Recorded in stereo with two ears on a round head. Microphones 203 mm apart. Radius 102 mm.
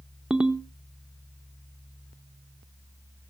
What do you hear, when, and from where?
0.3 s a ringtone: 5° right (ahead or behind), 0.7 m